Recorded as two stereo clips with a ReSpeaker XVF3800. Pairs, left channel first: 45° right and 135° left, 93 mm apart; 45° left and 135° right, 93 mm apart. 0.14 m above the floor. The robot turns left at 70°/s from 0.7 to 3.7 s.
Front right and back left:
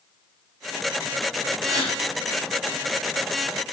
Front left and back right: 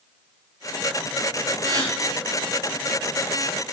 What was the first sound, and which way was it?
A gasp, 165° right.